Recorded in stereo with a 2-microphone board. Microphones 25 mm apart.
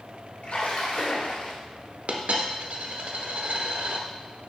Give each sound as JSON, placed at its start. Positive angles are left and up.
{"t": 0.4, "sound": "a splash", "side_deg": 60, "distance_m": 1.8}
{"t": 2.1, "sound": "a dropped coin", "side_deg": -70, "distance_m": 0.8}